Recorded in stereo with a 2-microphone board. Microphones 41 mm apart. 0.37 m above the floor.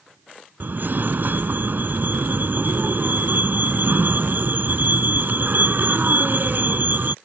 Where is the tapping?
No tapping in this recording.